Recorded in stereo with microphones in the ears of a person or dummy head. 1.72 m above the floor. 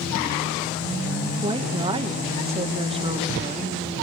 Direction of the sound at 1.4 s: 30° right (ahead or behind).